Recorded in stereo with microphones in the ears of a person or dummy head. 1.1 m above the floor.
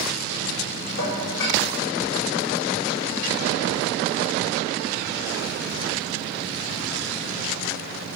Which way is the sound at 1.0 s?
70° left (ahead or behind).